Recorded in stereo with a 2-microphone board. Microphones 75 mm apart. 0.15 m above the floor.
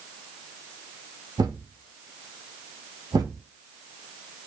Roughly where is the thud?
Right.